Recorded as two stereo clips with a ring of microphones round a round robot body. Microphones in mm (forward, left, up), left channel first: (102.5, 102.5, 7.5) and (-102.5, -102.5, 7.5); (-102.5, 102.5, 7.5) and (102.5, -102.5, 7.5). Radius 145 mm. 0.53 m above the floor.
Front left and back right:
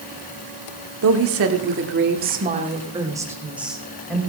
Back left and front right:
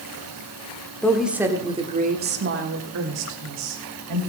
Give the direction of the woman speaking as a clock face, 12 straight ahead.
5 o'clock.